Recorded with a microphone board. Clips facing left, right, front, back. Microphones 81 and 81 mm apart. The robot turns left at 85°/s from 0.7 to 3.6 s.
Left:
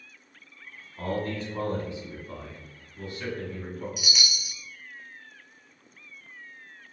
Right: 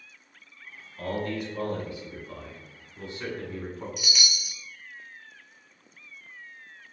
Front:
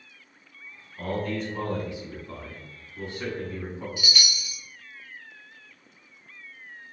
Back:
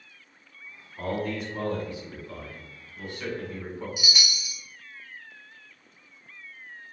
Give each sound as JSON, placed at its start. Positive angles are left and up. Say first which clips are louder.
{"t": 1.0, "sound": "a man speaking", "louder": "even, even", "azimuth_deg": 135, "distance_m": 1.4}
{"t": 4.0, "sound": "a chime", "louder": "even, front 1 dB", "azimuth_deg": 175, "distance_m": 0.7}